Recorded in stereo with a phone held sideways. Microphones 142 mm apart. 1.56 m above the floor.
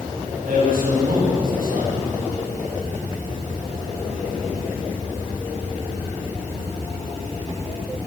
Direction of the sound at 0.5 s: 85° right.